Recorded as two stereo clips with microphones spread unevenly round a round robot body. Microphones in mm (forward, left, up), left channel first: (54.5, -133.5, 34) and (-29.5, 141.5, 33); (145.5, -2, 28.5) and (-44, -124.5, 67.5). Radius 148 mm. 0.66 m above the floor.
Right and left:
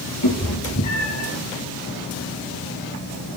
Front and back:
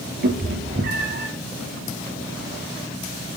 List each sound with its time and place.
0.2 s a cat meowing: 115° right, 3.5 m